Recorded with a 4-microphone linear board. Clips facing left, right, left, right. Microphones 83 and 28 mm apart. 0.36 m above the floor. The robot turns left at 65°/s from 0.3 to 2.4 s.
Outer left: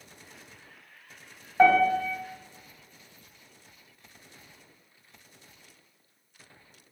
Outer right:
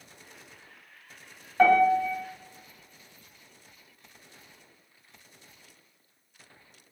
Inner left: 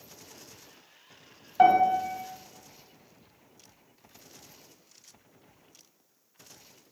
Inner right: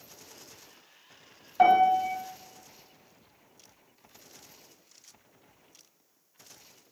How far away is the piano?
About 1.4 m.